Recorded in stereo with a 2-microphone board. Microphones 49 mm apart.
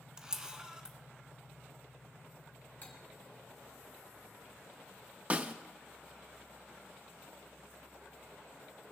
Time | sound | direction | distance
0.2 | a camera shutter | 15° right (ahead or behind) | 1.1 m
2.8 | cutlery clinking | 35° left (ahead or behind) | 2 m
5.3 | a snare drum | 30° right (ahead or behind) | 0.5 m